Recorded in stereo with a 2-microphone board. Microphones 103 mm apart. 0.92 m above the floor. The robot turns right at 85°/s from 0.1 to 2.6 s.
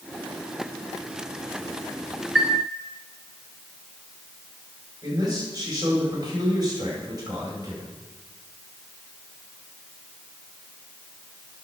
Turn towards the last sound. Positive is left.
turn(degrees=-40)  # may be behind; listen again after turning